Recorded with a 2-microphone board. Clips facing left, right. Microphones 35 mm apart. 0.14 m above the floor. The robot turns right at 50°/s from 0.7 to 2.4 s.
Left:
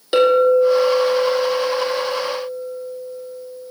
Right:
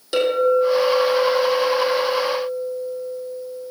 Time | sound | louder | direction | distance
0.1 | a clink | left 4 dB | 155° left | 3 m